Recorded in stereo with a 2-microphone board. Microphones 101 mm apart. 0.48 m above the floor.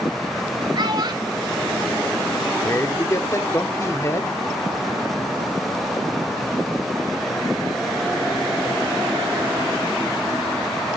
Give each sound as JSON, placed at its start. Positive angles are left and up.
{"t": 0.8, "sound": "a child speaking", "side_deg": -50, "distance_m": 1.8}
{"t": 2.6, "sound": "a man speaking", "side_deg": 30, "distance_m": 1.1}